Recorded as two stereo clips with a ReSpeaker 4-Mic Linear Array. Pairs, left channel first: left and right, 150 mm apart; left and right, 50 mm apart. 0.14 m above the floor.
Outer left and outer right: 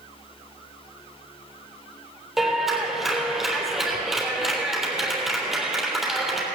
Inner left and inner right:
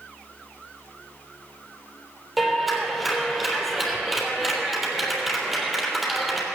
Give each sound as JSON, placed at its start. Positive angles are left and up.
{"t": 2.4, "sound": "a clap", "side_deg": 0, "distance_m": 3.0}